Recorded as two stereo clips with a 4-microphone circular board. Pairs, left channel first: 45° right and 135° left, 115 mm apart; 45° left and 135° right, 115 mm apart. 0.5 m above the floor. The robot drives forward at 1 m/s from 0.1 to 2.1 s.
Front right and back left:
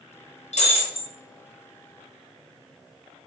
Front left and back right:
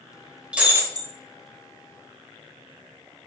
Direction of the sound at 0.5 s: 55° right.